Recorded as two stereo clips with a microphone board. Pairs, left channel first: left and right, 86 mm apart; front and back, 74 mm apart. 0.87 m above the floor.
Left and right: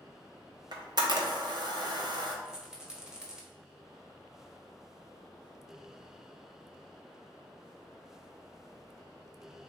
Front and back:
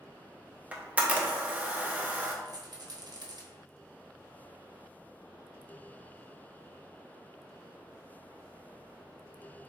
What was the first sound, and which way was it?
A camera shutter, 110° right.